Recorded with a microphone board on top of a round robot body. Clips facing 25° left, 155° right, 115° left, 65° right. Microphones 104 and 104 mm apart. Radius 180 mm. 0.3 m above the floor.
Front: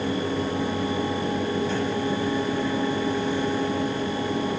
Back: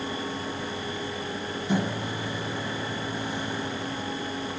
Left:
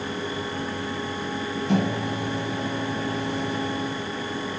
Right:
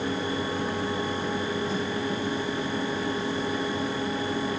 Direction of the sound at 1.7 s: 130° left.